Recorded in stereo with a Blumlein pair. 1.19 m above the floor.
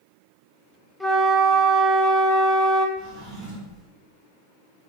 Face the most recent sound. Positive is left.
turn(degrees=-40)